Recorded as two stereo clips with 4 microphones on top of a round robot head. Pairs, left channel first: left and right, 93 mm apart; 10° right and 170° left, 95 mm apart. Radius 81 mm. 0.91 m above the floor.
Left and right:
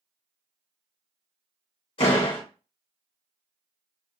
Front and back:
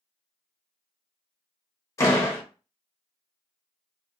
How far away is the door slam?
About 1.1 m.